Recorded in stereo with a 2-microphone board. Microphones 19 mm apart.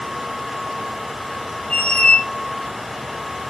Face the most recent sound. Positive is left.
turn(degrees=65)  # may be behind; listen again after turning